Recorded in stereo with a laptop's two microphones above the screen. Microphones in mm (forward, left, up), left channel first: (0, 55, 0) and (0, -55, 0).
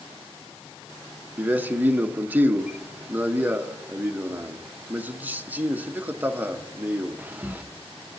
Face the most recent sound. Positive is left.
turn(degrees=-15)  # may be behind; listen again after turning